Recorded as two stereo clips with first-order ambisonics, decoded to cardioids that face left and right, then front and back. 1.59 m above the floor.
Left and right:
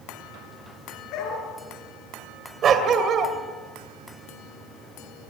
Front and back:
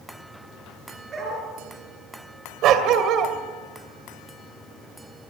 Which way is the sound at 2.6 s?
140° right.